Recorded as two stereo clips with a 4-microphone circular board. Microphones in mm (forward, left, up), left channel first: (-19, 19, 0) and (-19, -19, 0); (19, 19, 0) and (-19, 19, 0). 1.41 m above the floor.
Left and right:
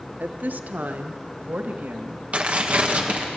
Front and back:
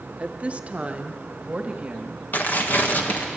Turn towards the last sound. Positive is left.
turn(degrees=-40)